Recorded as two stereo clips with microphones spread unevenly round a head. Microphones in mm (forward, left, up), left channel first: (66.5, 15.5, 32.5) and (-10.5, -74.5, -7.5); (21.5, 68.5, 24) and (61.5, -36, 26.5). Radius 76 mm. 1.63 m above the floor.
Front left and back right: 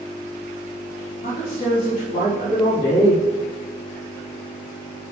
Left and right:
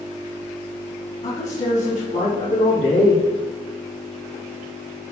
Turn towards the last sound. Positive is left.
turn(degrees=115)